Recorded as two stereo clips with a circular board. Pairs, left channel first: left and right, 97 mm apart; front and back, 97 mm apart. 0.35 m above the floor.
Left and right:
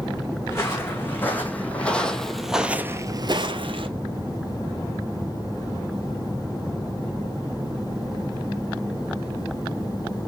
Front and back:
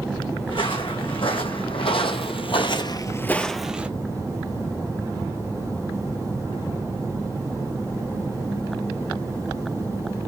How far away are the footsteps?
About 1.8 m.